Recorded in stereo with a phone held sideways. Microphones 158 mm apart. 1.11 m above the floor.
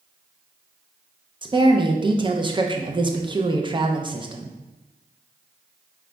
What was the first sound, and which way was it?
A woman speaking, 30° right (ahead or behind).